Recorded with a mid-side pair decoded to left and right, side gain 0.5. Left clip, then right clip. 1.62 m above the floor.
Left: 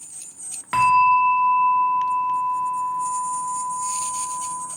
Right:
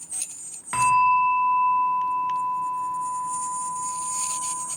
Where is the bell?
25° left, 0.8 m.